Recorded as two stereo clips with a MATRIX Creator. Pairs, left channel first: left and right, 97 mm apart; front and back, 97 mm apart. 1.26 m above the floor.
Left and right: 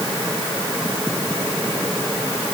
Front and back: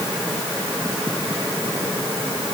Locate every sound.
Only background noise.